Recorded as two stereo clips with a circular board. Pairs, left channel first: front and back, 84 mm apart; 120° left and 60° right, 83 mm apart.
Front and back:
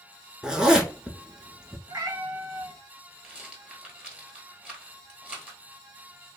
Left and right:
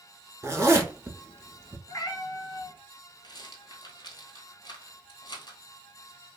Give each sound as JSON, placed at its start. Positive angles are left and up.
{"t": 0.4, "sound": "a zipper", "azimuth_deg": -105, "distance_m": 0.8}
{"t": 1.9, "sound": "a cat meowing", "azimuth_deg": 150, "distance_m": 0.6}
{"t": 3.2, "sound": "a rattle", "azimuth_deg": 105, "distance_m": 1.1}